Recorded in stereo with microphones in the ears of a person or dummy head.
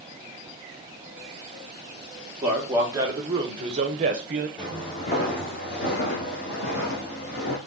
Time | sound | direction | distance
2.4 | a man speaking | 10° right (ahead or behind) | 1.6 m
4.6 | footsteps | 20° left (ahead or behind) | 1.3 m